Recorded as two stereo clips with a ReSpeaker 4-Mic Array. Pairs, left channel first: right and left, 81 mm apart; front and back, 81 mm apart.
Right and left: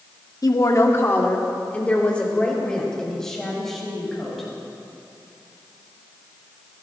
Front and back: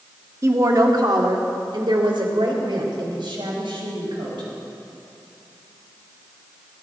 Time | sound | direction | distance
0.4 | a woman speaking | 130° right | 1.5 m